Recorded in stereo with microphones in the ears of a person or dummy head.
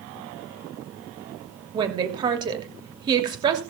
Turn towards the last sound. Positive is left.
turn(degrees=-25)  # may be behind; listen again after turning